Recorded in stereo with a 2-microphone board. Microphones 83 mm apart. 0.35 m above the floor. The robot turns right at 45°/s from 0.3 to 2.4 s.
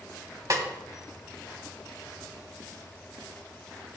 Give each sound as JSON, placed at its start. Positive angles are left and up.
{"t": 0.5, "sound": "a snare drum", "side_deg": -45, "distance_m": 1.4}